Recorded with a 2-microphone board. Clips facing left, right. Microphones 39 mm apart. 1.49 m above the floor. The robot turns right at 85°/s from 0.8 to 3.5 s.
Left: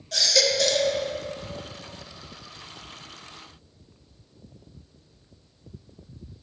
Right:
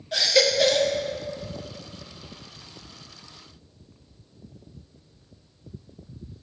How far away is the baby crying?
About 0.7 m.